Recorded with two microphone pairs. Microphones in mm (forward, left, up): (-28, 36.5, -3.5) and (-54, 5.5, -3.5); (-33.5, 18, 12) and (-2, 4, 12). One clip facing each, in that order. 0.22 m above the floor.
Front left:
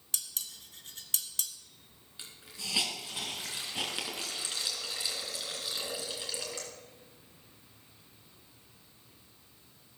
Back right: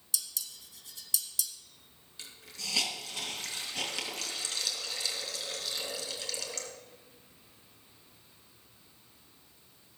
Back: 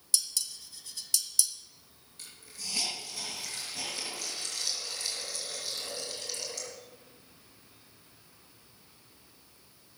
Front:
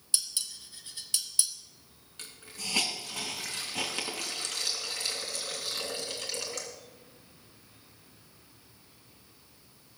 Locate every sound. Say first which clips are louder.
0.1 s dishes clattering: back right 1 dB, back 1 dB; 30° left, 1.2 m
2.2 s a hiss: even, front 4 dB; 20° right, 3 m